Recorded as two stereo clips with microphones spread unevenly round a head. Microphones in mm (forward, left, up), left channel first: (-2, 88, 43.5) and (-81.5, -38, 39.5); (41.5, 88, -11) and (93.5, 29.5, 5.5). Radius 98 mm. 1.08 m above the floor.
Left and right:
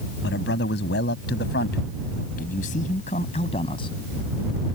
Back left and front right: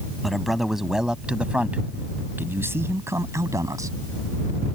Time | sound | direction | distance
0.2 | a man speaking | 40° left | ?